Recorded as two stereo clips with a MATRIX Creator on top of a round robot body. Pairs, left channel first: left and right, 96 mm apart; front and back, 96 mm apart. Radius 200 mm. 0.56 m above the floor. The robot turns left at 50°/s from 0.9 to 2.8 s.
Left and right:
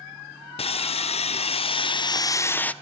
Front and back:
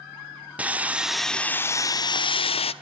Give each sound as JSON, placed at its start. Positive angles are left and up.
{"t": 0.6, "sound": "sawing", "azimuth_deg": 105, "distance_m": 0.9}